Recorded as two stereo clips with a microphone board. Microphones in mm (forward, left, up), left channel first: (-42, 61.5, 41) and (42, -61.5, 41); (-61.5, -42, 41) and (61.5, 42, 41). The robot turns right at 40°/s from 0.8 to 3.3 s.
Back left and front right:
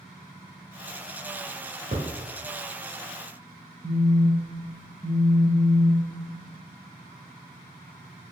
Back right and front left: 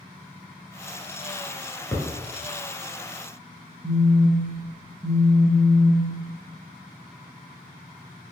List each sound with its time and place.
1.9 s a thud: 70° right, 1.0 m; by 2.1 s 65° right, 1.0 m
3.8 s a phone buzzing: 25° right, 0.6 m